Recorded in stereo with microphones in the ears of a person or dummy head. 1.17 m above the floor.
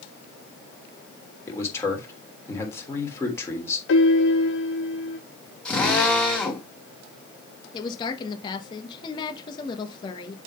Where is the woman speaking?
30° left (ahead or behind), 1.1 m.